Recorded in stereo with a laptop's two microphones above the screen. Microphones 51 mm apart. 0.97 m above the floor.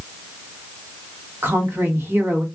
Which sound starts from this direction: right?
A woman speaking, at 1.4 s.